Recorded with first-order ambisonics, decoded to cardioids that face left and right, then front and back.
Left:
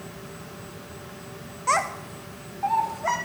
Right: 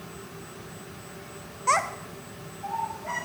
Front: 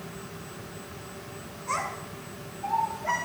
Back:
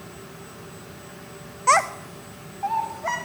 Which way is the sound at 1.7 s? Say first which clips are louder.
Left 1 dB, back 12 dB; 170° right.